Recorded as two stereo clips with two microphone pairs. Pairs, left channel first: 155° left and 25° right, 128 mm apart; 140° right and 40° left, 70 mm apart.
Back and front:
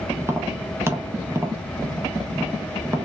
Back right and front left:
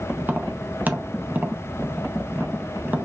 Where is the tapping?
20° left, 0.6 m.